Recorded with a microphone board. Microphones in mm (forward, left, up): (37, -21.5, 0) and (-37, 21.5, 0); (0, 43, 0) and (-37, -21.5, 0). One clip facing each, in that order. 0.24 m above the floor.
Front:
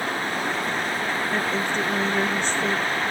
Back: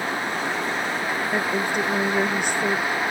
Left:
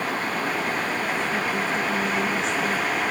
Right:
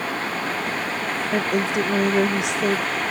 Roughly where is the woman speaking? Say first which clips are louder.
Back 3 dB, right 3 dB; behind right.